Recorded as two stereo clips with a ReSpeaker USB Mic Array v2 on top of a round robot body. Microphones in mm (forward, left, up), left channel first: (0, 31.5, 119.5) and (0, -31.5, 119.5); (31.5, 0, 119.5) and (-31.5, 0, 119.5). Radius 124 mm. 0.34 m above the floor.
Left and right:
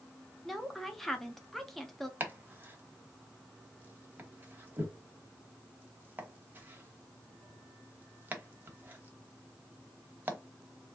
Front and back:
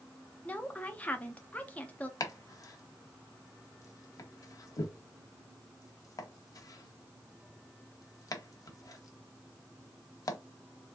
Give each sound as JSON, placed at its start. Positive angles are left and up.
{"t": 0.5, "sound": "a woman speaking", "azimuth_deg": 10, "distance_m": 0.9}
{"t": 2.2, "sound": "chopping", "azimuth_deg": -30, "distance_m": 1.0}